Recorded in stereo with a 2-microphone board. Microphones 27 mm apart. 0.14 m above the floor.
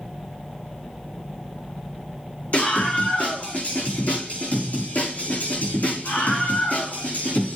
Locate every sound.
2.5 s a scream: 50° left (ahead or behind), 7.5 m; by 7.5 s 80° left, 6.5 m